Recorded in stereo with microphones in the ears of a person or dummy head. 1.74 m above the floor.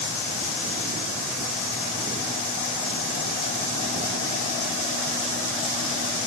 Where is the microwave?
I don't hear a microwave.